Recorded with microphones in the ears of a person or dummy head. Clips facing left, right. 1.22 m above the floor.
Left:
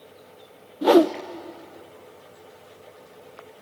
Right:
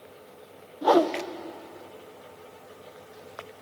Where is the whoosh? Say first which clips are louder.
Left 5 dB; 30° left (ahead or behind), 0.6 m.